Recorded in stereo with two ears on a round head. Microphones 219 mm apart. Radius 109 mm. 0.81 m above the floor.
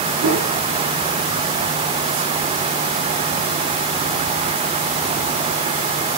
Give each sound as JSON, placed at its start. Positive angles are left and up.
{"t": 0.2, "sound": "a whoosh", "side_deg": -55, "distance_m": 8.0}